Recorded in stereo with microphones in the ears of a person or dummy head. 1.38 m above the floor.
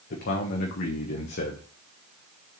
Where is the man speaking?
50° left (ahead or behind), 1.1 m.